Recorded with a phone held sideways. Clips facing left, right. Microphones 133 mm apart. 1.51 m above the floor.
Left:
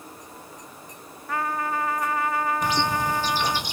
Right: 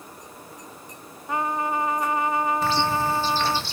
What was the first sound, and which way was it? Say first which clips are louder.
A trumpet: right 2 dB; 20° right (ahead or behind).